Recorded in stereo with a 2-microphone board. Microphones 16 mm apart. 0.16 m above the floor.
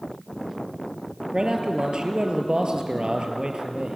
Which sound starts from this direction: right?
A man speaking, at 1.3 s.